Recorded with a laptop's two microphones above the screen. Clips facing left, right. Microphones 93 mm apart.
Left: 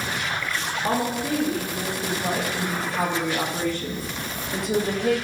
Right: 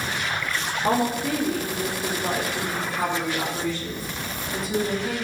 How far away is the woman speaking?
About 1.8 m.